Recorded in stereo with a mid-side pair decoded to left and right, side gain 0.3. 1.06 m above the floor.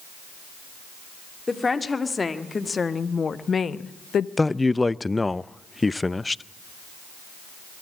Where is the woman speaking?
40° left, 2.5 m; by 4.3 s 80° left, 0.7 m.